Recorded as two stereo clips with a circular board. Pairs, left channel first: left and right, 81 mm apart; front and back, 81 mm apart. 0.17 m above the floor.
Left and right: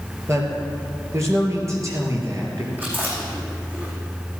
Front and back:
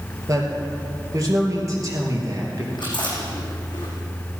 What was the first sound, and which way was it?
A man speaking, 140° right.